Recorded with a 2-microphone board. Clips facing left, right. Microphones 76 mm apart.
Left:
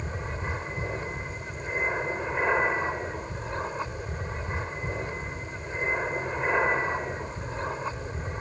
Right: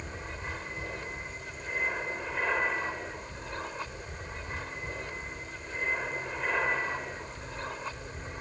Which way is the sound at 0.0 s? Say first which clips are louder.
Left 5 dB; 20° left (ahead or behind).